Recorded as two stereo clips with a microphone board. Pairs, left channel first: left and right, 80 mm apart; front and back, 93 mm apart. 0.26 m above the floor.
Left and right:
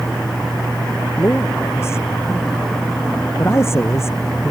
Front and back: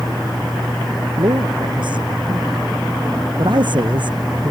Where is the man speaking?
150° left; by 4.5 s 145° left.